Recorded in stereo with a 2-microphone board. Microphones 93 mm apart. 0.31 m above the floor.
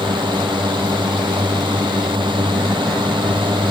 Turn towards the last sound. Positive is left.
turn(degrees=-65)  # may be behind; listen again after turning